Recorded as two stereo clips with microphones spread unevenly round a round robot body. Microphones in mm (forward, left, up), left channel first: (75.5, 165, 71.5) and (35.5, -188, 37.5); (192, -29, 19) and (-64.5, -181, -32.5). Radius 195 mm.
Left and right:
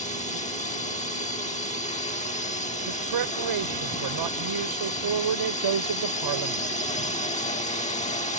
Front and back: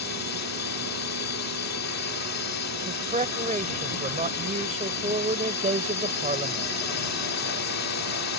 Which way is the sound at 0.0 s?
15° left.